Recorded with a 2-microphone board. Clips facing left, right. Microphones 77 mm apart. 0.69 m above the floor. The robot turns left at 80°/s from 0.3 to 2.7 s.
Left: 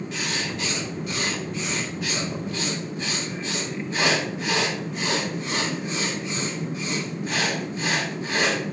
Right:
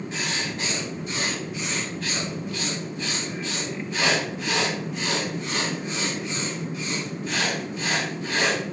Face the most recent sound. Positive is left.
turn(degrees=100)